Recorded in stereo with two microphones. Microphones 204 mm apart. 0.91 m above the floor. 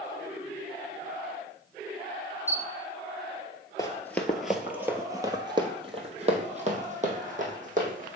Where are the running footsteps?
20° left (ahead or behind), 1.0 m; by 8.2 s 45° right (ahead or behind), 2.5 m.